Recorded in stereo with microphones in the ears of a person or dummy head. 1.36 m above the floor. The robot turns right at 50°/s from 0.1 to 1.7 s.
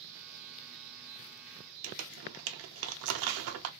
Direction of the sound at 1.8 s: 75° right (ahead or behind).